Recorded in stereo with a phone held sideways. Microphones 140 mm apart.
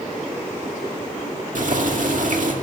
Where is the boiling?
65° right (ahead or behind), 1.9 m.